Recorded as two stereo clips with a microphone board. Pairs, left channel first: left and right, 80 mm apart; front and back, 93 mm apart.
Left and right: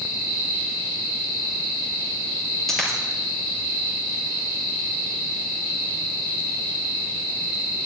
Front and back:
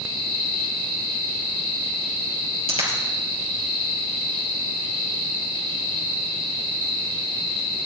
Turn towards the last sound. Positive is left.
turn(degrees=175)